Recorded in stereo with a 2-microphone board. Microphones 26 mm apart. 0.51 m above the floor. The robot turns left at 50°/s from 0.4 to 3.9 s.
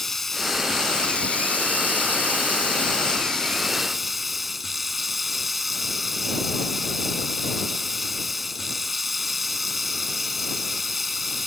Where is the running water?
170° left; by 11.5 s 5° right.